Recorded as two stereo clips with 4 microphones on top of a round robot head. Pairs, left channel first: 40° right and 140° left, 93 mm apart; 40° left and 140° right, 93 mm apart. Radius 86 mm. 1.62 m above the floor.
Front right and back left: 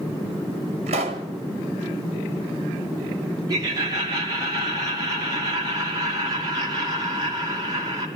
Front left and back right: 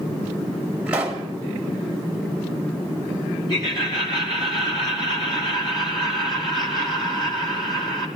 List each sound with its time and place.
0.9 s a pop: 140° left, 1.3 m
3.5 s laughter: 85° left, 3 m